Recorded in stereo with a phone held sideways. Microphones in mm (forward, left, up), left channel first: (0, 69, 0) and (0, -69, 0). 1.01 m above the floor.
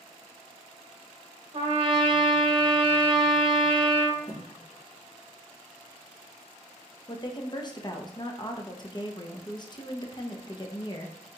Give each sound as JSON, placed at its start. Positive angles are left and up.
{"t": 1.5, "sound": "a trumpet", "side_deg": -45, "distance_m": 1.0}
{"t": 4.3, "sound": "a thud", "side_deg": 50, "distance_m": 2.0}
{"t": 7.1, "sound": "a woman speaking", "side_deg": 30, "distance_m": 0.6}